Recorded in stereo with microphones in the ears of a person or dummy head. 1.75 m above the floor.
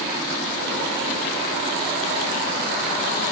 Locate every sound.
Only background noise.